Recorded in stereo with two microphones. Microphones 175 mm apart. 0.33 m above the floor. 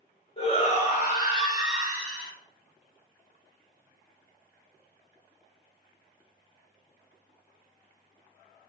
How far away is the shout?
About 1.3 m.